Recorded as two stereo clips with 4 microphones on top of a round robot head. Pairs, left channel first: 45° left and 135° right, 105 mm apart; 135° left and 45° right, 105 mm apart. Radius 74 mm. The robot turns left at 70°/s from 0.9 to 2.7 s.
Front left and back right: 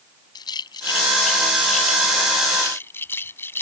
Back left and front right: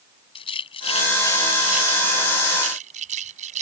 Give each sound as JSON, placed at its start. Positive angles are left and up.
{"t": 0.3, "sound": "a rattle", "azimuth_deg": 100}